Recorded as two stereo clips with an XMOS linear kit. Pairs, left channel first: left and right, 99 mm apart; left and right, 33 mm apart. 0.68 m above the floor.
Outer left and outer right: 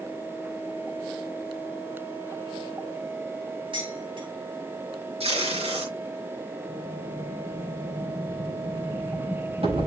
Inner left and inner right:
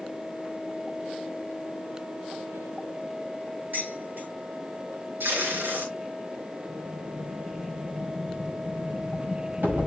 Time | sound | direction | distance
3.7 | dishes clattering | 55° right (ahead or behind) | 6 m
5.2 | tape being pulled | 85° right | 5 m
6.7 | an explosion | 75° right (ahead or behind) | 5.5 m